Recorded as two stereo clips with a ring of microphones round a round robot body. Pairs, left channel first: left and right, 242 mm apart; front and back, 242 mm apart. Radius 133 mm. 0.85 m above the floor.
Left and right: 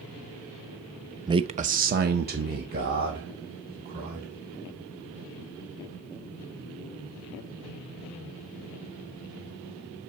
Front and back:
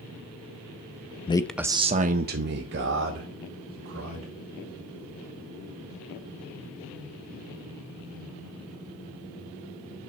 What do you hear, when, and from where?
1.3 s a man speaking: 35° right, 0.5 m; by 4.3 s 150° right, 2.5 m